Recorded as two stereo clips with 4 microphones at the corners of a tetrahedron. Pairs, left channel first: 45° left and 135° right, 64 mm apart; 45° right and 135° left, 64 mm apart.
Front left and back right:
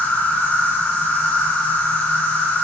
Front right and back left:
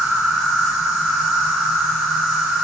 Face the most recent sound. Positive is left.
turn(degrees=65)